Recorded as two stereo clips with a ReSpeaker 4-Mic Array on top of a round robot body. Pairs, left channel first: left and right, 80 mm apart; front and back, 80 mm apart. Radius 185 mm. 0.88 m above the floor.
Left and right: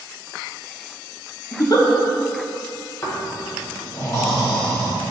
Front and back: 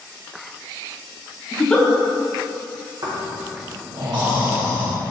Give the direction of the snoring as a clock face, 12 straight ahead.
7 o'clock.